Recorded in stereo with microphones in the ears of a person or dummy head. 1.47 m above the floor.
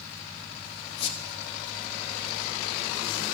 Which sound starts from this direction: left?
A squeak, at 1.0 s.